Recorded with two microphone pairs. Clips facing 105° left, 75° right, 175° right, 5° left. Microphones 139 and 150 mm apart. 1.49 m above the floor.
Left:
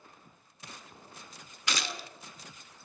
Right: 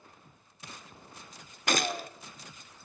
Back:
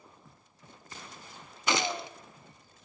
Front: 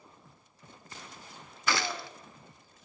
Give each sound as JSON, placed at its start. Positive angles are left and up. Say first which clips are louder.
{"t": 1.7, "sound": "a gunshot", "louder": "right 7 dB, back 2 dB", "azimuth_deg": -110, "distance_m": 0.5}